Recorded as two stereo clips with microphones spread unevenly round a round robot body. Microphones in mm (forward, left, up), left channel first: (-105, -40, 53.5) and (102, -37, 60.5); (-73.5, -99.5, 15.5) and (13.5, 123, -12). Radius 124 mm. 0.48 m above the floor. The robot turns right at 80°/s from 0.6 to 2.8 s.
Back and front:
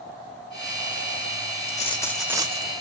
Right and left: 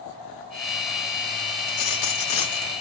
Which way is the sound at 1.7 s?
130° right.